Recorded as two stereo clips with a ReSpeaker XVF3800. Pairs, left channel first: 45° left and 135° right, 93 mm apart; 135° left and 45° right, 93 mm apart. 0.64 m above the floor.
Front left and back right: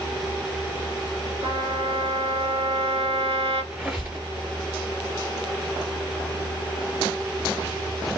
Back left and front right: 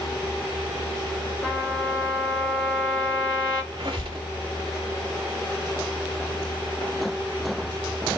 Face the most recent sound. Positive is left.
turn(degrees=-60)